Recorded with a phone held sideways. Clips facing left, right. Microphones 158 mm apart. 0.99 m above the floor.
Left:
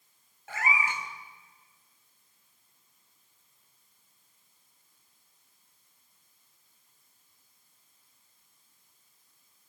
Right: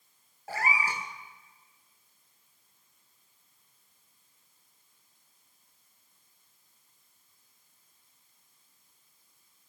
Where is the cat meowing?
35° right (ahead or behind), 2 m.